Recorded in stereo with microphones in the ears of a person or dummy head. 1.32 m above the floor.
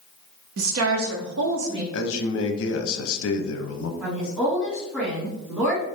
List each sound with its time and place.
0.6 s a woman speaking: 70° right (ahead or behind), 0.5 m; by 1.8 s 65° right (ahead or behind), 1.1 m
1.9 s a man speaking: 70° left (ahead or behind), 0.6 m
4.0 s a woman speaking: 5° right (ahead or behind), 1.9 m